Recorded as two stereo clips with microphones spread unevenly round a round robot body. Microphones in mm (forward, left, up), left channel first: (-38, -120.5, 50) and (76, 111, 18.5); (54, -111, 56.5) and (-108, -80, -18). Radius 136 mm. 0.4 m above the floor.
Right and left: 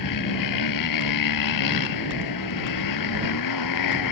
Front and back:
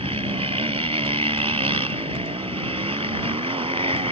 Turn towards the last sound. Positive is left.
turn(degrees=-135)